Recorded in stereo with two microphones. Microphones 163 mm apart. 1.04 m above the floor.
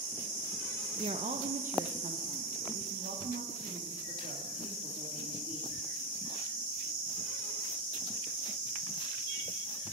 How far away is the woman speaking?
About 0.7 m.